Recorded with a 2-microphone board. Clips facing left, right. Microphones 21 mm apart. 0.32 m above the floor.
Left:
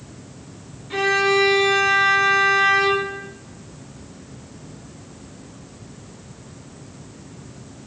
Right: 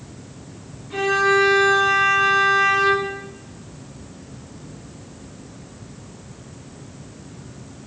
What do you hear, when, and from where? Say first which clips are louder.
0.9 s a violin: even; 60° left (ahead or behind), 0.7 m